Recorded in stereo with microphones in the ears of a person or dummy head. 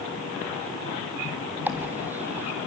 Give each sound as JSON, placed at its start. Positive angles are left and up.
{"t": 1.7, "sound": "a dropped coin", "side_deg": -5, "distance_m": 1.2}